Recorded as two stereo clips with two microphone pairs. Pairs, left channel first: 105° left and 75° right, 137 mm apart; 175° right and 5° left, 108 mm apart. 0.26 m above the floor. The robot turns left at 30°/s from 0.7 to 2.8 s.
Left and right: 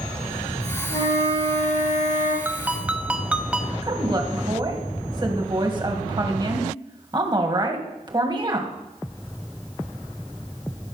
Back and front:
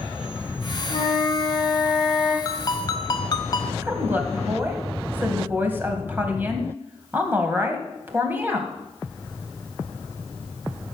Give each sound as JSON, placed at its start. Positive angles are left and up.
{"t": 0.9, "sound": "a flute", "azimuth_deg": 160, "distance_m": 5.0}
{"t": 2.5, "sound": "a ringtone", "azimuth_deg": -140, "distance_m": 0.9}
{"t": 3.8, "sound": "a woman speaking", "azimuth_deg": -50, "distance_m": 1.5}